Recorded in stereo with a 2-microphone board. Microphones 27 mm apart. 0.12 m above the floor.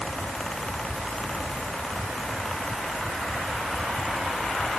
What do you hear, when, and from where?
Only background noise.